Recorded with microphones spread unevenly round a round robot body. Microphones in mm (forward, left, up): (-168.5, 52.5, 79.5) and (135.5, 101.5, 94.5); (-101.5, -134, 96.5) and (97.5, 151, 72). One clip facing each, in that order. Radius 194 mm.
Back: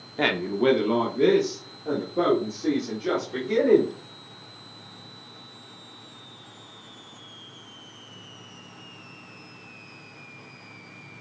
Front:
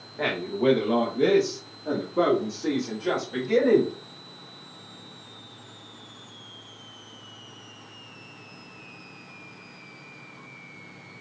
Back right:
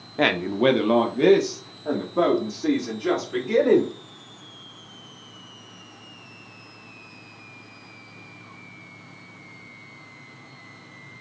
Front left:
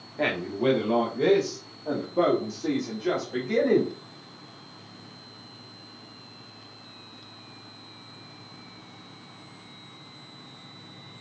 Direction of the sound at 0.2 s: 145° right.